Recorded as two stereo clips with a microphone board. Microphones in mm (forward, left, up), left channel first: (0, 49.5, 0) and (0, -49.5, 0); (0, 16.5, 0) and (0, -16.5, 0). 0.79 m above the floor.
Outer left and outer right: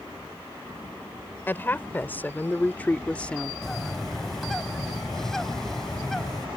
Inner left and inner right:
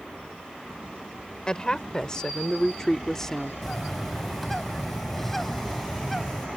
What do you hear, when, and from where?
1.5 s a woman speaking: 20° left (ahead or behind); by 3.5 s 10° left (ahead or behind)
3.6 s a bird: 5° left (ahead or behind)